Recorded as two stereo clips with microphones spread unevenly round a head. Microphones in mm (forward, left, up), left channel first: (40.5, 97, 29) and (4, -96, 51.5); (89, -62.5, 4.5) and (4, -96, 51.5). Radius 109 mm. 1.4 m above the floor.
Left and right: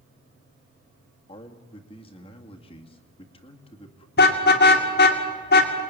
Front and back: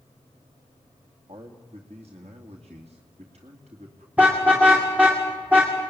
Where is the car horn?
125° left, 2 m.